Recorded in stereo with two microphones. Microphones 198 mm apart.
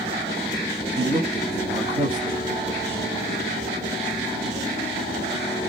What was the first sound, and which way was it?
A man speaking, 20° right (ahead or behind).